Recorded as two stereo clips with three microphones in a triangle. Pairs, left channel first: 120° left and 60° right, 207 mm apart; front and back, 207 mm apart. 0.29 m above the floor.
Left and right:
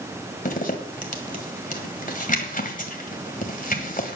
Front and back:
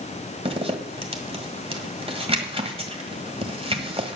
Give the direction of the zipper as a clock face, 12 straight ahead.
8 o'clock.